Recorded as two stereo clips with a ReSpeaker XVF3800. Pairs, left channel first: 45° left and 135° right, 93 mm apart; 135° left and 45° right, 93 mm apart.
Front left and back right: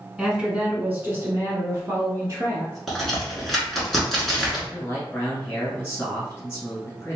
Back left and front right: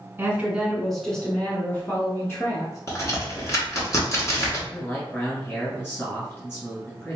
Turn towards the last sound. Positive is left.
turn(degrees=90)